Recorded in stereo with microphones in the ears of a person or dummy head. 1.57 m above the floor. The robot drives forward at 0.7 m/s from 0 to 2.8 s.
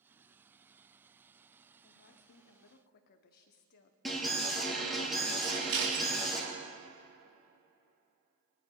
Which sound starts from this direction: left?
A woman speaking, at 1.8 s.